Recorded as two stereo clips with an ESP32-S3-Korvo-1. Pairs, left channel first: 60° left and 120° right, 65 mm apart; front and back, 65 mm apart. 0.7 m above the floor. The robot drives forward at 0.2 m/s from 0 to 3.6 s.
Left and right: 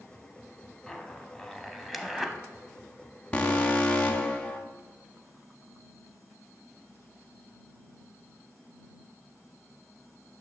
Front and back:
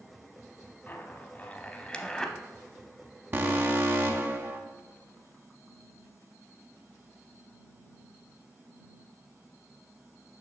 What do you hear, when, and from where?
0.9 s a zipper: 10° right, 0.6 m; by 2.4 s 55° right, 0.5 m
3.3 s an alarm: 130° left, 0.6 m; by 4.6 s 135° left, 0.7 m